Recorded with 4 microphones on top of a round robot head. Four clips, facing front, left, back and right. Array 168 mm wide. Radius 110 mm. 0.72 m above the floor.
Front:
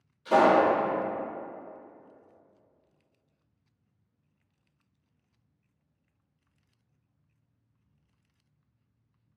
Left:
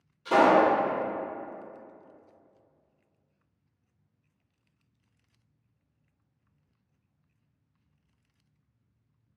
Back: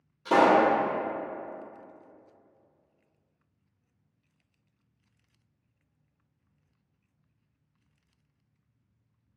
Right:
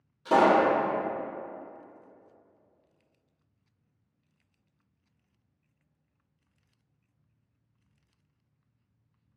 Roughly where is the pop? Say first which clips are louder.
Left 1 dB, even; behind right.